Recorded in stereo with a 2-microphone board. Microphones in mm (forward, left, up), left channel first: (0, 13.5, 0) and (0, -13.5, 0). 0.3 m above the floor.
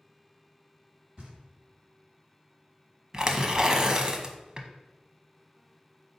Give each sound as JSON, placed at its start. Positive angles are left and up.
{"t": 1.2, "sound": "knocking", "side_deg": -35, "distance_m": 1.4}
{"t": 3.1, "sound": "tearing paper", "side_deg": -25, "distance_m": 0.5}